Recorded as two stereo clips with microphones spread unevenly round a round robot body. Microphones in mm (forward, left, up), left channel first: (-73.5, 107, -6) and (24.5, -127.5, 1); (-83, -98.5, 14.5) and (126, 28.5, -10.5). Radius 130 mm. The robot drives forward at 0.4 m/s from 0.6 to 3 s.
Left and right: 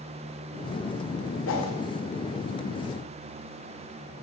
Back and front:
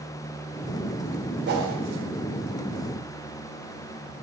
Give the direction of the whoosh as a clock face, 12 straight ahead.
9 o'clock.